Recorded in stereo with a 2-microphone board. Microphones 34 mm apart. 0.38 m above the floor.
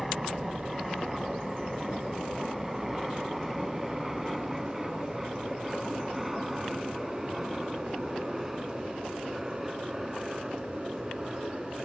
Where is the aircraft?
Centre (ahead or behind); by 11.9 s 5° right (ahead or behind).